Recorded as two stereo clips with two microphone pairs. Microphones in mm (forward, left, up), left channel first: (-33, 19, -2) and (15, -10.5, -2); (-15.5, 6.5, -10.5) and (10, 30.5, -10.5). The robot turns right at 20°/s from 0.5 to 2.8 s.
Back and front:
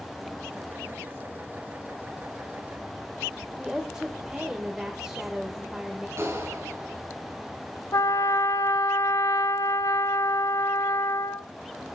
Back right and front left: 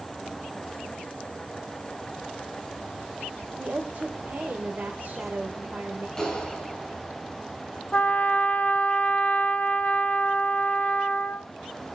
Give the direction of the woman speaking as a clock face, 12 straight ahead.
11 o'clock.